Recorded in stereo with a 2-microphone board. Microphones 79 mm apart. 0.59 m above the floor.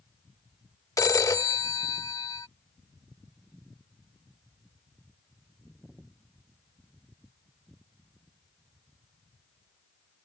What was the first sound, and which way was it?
A phone ringing, 45° left (ahead or behind).